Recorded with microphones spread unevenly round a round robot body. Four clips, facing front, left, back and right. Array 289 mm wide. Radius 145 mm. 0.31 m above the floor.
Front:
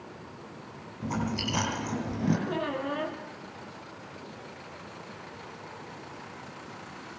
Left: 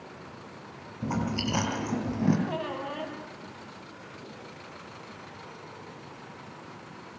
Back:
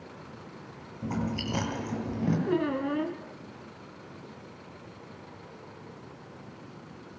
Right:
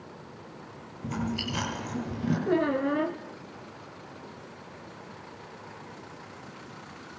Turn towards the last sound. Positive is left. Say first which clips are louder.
# right 8 dB, back 3 dB
turn(degrees=-130)